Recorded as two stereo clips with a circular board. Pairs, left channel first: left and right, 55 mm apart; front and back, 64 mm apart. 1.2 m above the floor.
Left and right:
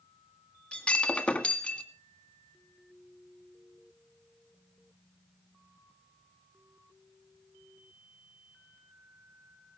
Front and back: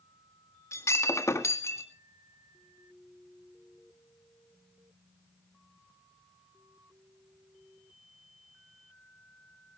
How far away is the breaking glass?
About 1.8 m.